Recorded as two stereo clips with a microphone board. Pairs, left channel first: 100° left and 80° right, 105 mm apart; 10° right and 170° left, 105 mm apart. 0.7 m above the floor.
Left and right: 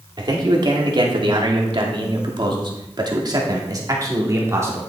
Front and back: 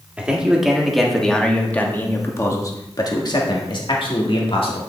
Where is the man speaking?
110° right, 2 m; by 4.8 s 20° right, 2 m.